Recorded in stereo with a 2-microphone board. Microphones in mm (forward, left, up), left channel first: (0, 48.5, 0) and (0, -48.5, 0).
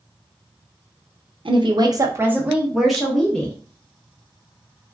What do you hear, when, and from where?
1.4 s a woman speaking: 60° right (ahead or behind), 0.6 m; by 3.5 s 10° left (ahead or behind), 1.3 m